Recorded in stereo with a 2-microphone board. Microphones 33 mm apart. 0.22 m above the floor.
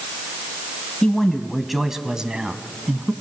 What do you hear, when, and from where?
1.0 s a man speaking: 20° left (ahead or behind), 1.3 m; by 3.1 s 45° right (ahead or behind), 1.7 m